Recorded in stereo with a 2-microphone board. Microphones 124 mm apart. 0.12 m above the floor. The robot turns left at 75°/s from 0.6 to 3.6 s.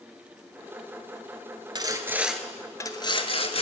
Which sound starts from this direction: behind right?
Sawing, at 1.8 s.